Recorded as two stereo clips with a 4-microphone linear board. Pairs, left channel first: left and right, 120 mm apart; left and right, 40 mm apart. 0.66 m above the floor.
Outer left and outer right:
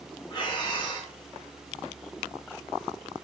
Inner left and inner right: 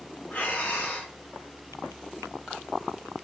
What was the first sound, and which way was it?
Breathing, 40° left (ahead or behind).